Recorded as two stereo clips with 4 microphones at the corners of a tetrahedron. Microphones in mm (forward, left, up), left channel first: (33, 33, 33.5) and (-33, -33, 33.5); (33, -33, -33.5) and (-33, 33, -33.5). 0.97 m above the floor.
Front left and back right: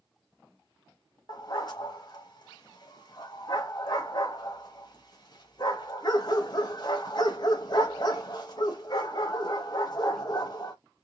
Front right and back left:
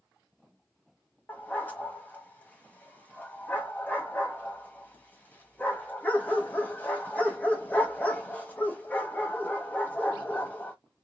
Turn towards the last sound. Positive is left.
turn(degrees=20)